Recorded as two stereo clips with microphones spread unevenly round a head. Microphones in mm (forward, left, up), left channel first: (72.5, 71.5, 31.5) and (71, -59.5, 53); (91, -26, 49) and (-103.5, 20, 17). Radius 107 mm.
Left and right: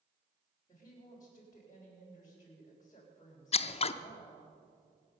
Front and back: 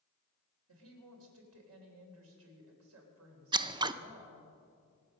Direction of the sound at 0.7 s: 160° left.